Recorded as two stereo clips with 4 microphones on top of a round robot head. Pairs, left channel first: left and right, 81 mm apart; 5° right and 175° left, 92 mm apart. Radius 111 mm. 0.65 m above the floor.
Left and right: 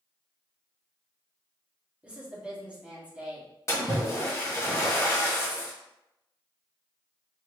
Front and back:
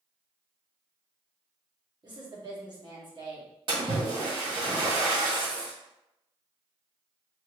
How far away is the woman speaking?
About 1.5 m.